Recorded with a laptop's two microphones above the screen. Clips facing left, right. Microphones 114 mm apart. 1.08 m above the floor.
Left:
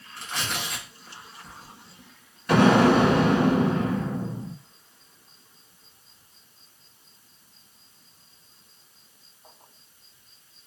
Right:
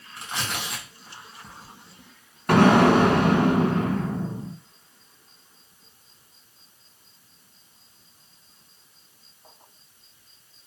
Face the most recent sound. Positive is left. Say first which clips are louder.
# right 1 dB
turn(degrees=-55)  # may be behind; listen again after turning